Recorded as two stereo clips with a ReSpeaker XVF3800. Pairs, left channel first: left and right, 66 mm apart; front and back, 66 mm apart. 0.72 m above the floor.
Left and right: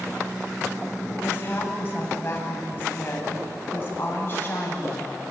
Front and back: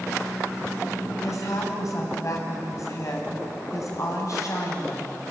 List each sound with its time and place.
1.2 s a woman speaking: 35° left, 5 m